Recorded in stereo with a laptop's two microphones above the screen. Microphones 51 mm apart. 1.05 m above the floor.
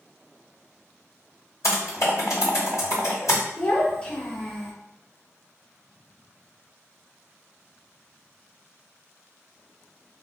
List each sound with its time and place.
1.6 s typing on a keyboard: 75° left (ahead or behind), 2.0 m
3.6 s a child speaking: 20° left (ahead or behind), 1.1 m